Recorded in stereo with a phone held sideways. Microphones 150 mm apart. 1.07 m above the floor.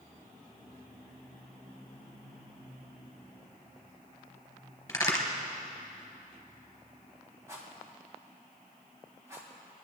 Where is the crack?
15° left (ahead or behind), 3 m.